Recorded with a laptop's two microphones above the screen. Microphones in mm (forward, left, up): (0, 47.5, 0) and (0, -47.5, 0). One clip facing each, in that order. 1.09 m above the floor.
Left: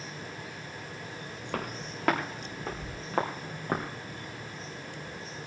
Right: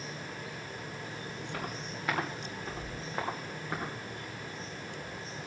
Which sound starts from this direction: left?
Footsteps, at 1.5 s.